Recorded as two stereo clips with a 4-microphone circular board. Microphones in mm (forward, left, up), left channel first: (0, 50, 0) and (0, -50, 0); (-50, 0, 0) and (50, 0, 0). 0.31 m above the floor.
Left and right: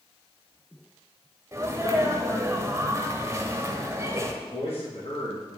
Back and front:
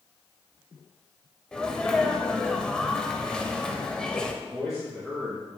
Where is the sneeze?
105° right, 1.0 m.